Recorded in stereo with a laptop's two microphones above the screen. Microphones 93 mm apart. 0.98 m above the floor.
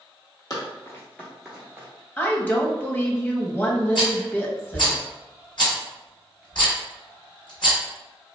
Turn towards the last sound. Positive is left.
turn(degrees=55)  # may be behind; listen again after turning